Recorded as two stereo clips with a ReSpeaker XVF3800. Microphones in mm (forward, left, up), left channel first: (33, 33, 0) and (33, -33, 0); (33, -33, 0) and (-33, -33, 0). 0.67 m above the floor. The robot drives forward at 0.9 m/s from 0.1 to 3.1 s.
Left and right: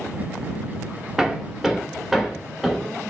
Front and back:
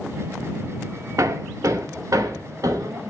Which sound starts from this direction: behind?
Hammering, at 1.2 s.